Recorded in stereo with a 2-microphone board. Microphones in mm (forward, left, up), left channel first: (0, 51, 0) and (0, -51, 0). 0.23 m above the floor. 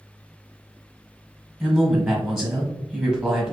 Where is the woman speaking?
Centre (ahead or behind), 1.3 m.